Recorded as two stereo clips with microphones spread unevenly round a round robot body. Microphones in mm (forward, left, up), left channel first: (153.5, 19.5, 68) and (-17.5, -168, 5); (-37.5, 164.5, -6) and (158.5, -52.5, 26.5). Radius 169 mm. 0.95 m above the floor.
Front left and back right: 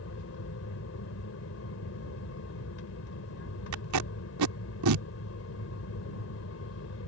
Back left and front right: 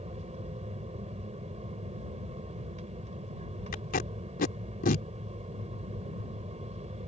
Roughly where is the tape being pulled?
Behind.